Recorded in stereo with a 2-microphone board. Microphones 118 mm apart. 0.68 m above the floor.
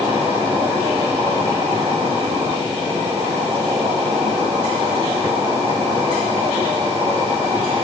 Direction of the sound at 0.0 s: 25° right (ahead or behind).